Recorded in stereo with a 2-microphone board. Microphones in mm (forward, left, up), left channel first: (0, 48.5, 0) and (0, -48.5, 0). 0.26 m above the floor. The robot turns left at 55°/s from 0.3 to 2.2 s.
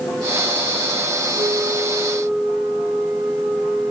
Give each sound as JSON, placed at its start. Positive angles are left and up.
{"t": 1.4, "sound": "a flute", "azimuth_deg": -130, "distance_m": 5.5}